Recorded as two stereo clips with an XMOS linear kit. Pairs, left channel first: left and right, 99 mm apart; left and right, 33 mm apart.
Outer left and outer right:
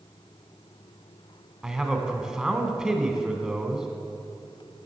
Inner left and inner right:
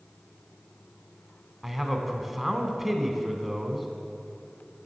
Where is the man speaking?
5° right (ahead or behind), 1.0 m.